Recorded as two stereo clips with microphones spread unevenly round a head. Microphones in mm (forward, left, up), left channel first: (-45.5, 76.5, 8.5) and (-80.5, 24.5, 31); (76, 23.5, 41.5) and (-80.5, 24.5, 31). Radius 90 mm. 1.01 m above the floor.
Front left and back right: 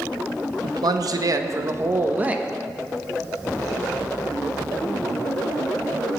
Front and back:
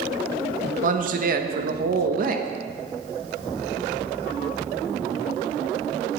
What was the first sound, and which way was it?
A man speaking, 140° right.